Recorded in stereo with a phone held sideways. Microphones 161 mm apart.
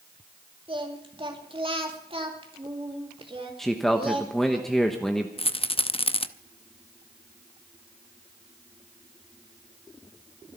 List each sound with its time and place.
0.7 s singing: 35° right (ahead or behind), 2.5 m
3.6 s a man speaking: centre (ahead or behind), 1.2 m
5.4 s a rattle: 35° left (ahead or behind), 0.7 m